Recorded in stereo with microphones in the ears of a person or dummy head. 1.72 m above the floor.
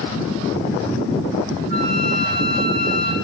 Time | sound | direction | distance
1.7 | a flute | 60° right (ahead or behind) | 6.5 m